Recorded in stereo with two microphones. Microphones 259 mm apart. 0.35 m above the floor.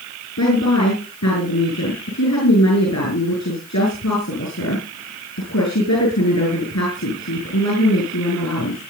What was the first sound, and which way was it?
A woman speaking, 75° left (ahead or behind).